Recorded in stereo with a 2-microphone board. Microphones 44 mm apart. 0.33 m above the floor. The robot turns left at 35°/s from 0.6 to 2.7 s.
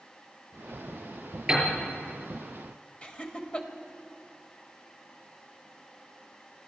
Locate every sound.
1.5 s a piano: 15° right (ahead or behind), 6.5 m; by 1.7 s 25° right (ahead or behind), 6.5 m
3.0 s laughter: 25° left (ahead or behind), 1.2 m